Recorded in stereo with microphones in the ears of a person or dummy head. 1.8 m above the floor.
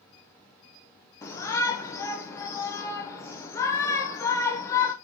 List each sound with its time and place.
1.2 s a shout: 20° left (ahead or behind), 0.8 m